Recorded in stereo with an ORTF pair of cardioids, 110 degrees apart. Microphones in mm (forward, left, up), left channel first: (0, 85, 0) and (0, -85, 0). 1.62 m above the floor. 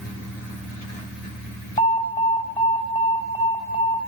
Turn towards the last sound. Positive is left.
turn(degrees=35)